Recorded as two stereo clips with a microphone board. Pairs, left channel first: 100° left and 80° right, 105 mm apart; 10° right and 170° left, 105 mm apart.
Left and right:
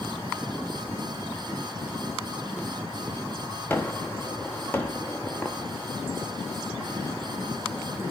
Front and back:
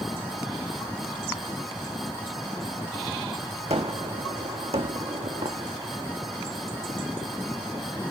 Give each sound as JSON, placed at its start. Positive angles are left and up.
{"t": 3.7, "sound": "a gunshot", "azimuth_deg": 175, "distance_m": 1.5}